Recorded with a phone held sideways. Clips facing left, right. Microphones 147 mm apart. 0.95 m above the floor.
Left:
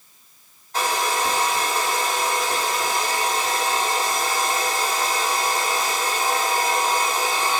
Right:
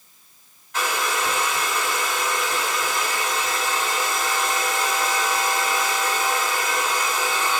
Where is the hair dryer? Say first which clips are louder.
Left 2 dB; 40° left (ahead or behind), 1.8 m.